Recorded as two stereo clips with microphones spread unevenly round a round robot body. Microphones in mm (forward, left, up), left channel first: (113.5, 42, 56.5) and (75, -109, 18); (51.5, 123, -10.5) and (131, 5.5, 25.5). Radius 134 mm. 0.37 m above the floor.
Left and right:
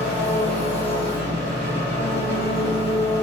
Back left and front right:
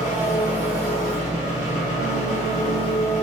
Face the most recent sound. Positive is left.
turn(degrees=-165)